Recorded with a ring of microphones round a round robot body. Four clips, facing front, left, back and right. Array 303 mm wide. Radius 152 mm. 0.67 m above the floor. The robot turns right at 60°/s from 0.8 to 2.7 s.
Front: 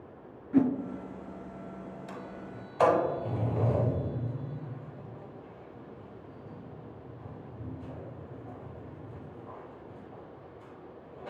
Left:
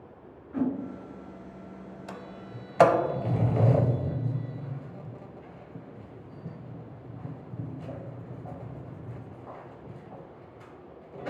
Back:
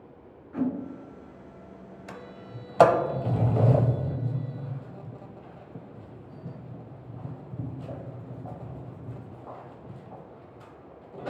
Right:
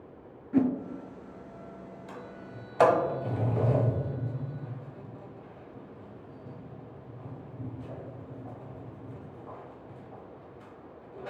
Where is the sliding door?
115° left, 0.6 m; by 11.3 s 150° left, 0.6 m.